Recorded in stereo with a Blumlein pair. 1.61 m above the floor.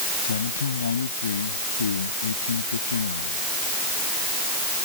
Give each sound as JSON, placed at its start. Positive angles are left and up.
{"t": 0.2, "sound": "a man speaking", "azimuth_deg": 70}